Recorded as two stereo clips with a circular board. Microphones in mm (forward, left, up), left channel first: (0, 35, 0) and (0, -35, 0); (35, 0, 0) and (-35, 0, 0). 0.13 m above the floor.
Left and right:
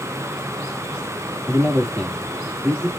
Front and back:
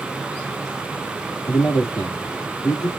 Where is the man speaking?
10° right, 4 m.